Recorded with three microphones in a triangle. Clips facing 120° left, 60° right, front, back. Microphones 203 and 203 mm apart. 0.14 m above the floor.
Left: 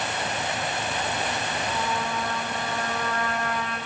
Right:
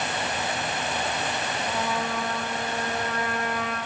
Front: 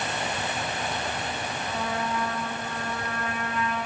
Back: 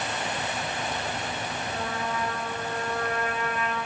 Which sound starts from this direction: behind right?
A trumpet, at 1.7 s.